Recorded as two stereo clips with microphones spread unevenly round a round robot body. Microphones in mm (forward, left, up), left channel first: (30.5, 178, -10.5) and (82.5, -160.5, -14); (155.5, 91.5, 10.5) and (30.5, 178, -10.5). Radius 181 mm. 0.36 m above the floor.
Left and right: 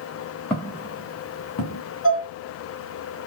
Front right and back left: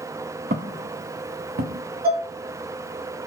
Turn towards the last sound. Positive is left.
turn(degrees=155)